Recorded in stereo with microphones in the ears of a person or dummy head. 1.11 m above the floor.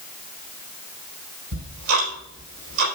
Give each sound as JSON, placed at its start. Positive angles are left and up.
{"t": 1.5, "sound": "ticking", "side_deg": -65, "distance_m": 4.0}